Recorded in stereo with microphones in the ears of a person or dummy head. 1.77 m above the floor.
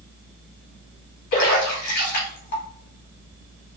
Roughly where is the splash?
Left.